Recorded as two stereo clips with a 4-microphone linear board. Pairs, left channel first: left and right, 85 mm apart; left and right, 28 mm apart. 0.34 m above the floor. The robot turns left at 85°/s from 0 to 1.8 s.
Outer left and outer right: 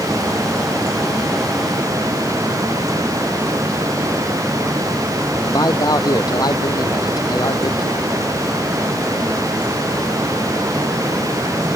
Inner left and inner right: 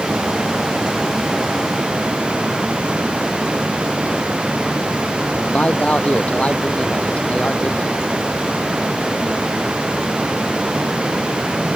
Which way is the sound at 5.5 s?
50° left (ahead or behind).